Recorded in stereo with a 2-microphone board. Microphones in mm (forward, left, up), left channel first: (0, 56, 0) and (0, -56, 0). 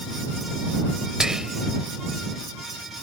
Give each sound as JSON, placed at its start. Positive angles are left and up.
{"t": 1.2, "sound": "whispering", "side_deg": -5}